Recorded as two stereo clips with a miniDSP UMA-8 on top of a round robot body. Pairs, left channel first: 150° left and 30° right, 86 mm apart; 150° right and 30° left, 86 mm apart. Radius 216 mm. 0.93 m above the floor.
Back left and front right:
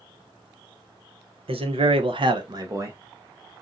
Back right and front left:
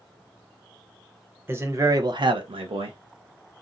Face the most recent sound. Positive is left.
turn(degrees=30)